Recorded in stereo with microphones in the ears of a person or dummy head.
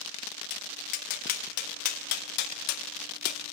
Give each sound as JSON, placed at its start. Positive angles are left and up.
{"t": 0.5, "sound": "tapping", "side_deg": 50, "distance_m": 0.7}